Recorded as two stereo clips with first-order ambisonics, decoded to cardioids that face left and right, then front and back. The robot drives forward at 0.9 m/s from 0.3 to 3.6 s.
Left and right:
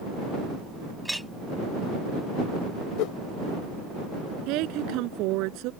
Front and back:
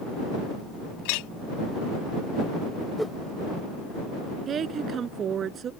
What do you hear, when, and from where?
1.1 s a clink: straight ahead
3.0 s a whoosh: 90° left; by 3.2 s 105° left
4.5 s a woman speaking: 120° right